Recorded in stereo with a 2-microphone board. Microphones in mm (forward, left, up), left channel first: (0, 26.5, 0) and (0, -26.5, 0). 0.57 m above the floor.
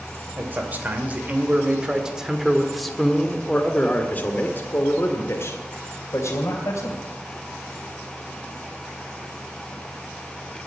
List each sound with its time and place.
0.4 s a man speaking: 35° right (ahead or behind), 2.5 m; by 7.0 s 65° left (ahead or behind), 3 m